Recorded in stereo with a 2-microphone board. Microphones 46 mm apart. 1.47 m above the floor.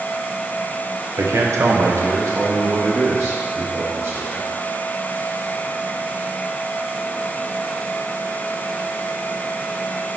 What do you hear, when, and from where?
1.2 s a man speaking: 75° right (ahead or behind), 0.9 m; by 4.5 s 55° right (ahead or behind), 3 m